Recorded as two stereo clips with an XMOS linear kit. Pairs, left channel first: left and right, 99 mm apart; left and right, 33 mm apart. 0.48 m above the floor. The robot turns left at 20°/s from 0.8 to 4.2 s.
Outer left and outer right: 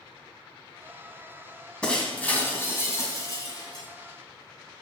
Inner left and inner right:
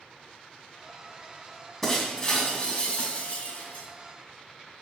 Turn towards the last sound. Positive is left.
turn(degrees=120)